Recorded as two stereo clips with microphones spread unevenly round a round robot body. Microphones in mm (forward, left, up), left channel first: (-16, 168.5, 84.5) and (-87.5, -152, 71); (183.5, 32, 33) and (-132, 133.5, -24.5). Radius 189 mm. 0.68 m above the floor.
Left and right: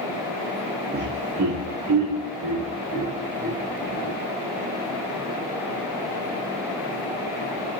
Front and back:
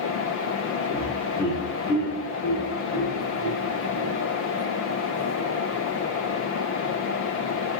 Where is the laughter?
105° right, 0.5 m; by 4.2 s 75° right, 3.5 m.